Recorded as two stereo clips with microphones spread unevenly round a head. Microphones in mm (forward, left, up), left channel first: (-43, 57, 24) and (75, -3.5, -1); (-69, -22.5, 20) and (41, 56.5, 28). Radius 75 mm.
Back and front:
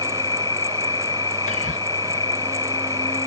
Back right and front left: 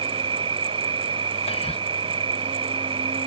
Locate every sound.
0.0 s an insect: 90° left
1.5 s whispering: 170° right